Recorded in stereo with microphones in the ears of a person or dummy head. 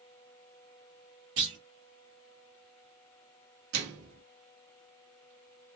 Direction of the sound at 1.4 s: 35° right (ahead or behind).